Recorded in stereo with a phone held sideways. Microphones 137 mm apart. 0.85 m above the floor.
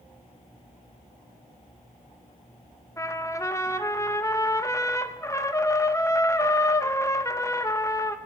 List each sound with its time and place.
3.0 s a trumpet: 20° left (ahead or behind), 0.6 m